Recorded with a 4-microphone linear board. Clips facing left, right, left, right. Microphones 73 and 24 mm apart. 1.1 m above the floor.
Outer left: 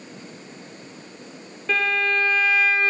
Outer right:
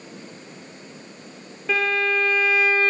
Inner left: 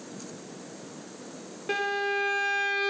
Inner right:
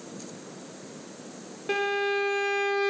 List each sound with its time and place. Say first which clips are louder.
1.7 s a violin: even, inner right 2 dB; 5° right (ahead or behind), 0.9 m